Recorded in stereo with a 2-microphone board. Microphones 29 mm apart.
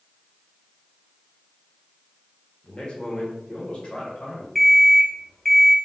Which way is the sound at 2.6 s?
35° left (ahead or behind).